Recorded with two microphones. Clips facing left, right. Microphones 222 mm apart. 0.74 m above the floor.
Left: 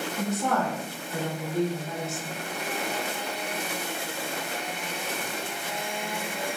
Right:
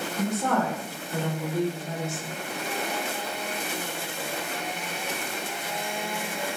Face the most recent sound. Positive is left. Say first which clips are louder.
# right 2 dB
turn(degrees=0)  # may be behind; listen again after turning